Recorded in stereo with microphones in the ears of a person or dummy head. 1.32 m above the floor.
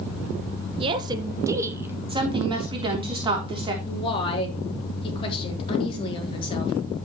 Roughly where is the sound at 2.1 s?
Right.